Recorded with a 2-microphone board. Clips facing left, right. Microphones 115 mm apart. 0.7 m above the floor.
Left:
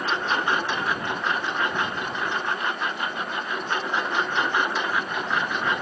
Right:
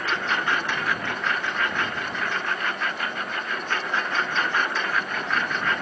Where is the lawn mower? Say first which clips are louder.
Left 1 dB; 20° left (ahead or behind); by 5.8 s 15° left (ahead or behind).